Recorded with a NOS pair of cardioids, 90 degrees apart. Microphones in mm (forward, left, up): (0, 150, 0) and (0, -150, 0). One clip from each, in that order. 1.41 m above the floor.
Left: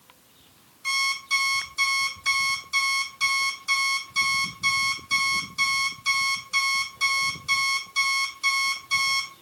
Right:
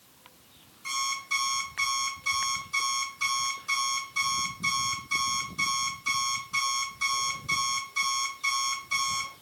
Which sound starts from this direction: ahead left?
An alarm clock, at 0.8 s.